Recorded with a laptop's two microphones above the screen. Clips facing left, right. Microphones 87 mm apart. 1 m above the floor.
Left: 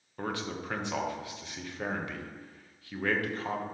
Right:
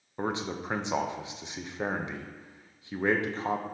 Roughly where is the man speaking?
Centre.